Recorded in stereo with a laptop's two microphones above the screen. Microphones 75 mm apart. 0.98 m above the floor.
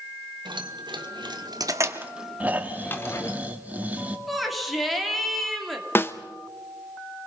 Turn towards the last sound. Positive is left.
turn(degrees=30)  # may be behind; listen again after turning